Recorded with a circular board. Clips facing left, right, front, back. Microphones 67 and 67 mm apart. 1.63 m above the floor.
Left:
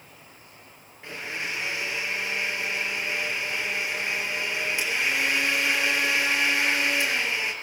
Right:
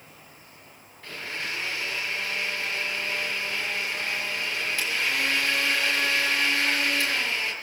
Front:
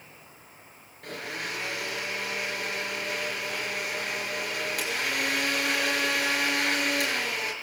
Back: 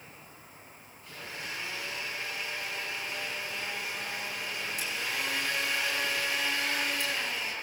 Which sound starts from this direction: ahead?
A blender, at 1.0 s.